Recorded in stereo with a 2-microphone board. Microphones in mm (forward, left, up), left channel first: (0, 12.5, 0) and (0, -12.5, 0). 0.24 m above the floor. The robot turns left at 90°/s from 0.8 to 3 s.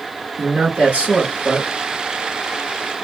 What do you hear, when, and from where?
0.4 s a man speaking: 100° right, 3.5 m; by 1.7 s straight behind, 3.5 m